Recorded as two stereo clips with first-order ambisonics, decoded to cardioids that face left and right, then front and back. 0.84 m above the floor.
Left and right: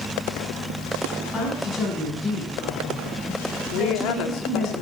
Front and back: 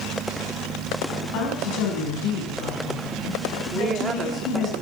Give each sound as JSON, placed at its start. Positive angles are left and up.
{"t": 1.3, "sound": "a woman speaking", "azimuth_deg": 15, "distance_m": 6.0}
{"t": 3.7, "sound": "a woman speaking", "azimuth_deg": 115, "distance_m": 2.0}